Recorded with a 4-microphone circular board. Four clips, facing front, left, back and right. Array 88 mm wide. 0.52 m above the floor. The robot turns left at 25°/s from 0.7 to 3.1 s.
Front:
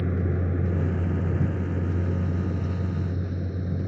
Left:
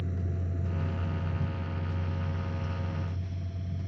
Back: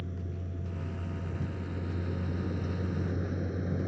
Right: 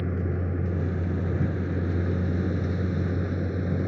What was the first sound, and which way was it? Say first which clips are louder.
A vehicle: right 8 dB, front 13 dB; 40° right.